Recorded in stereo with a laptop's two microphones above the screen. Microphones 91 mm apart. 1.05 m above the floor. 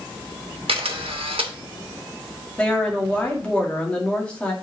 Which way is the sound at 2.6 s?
15° left (ahead or behind).